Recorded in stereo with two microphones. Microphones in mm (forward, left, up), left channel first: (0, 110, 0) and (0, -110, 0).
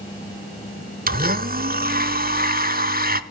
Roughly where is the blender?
Right.